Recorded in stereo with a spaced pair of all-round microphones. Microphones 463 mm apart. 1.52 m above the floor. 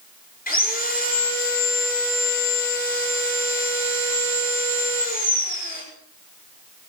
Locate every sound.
0.5 s sawing: 20° left (ahead or behind), 6 m